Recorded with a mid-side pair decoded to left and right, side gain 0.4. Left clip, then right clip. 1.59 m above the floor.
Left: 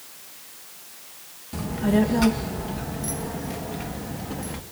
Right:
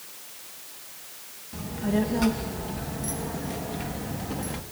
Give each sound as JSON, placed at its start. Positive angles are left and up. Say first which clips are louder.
{"t": 1.5, "sound": "a child speaking", "louder": "left 5 dB", "azimuth_deg": 55, "distance_m": 1.7}